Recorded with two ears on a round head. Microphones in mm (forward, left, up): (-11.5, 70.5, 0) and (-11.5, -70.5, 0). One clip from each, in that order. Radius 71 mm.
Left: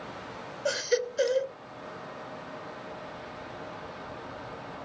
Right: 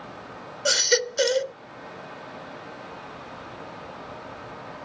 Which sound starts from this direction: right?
A baby crying, at 0.7 s.